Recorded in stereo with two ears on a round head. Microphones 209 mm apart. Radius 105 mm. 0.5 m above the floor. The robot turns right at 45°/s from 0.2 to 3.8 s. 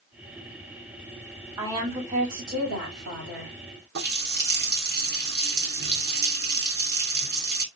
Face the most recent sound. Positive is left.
turn(degrees=-45)  # may be behind; listen again after turning